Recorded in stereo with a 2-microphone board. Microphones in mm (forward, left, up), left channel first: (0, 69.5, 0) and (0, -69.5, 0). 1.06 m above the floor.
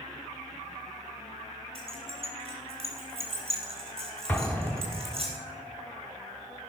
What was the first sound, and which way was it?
Keys jangling, 40° right (ahead or behind).